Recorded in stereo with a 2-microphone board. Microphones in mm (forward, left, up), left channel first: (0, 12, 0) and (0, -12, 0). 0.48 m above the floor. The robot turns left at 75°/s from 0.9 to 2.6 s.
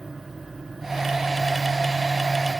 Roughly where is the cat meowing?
No cat meowing in this recording.